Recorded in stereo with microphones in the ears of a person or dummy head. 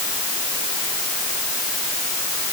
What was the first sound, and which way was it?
Only background noise.